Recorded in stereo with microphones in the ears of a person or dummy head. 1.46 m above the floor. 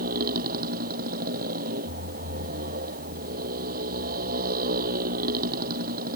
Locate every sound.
0.0 s a motorcycle: 55° right (ahead or behind)